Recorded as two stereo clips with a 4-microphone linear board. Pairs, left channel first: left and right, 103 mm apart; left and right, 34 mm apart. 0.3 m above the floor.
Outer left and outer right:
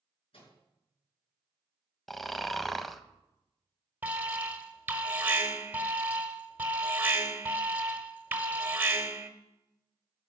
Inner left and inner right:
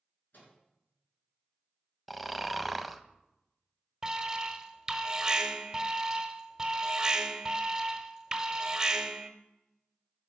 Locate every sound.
0.3 s a microwave: 65° left (ahead or behind), 4 m
2.1 s snoring: centre (ahead or behind), 0.5 m
4.0 s an alarm: 15° right (ahead or behind), 0.9 m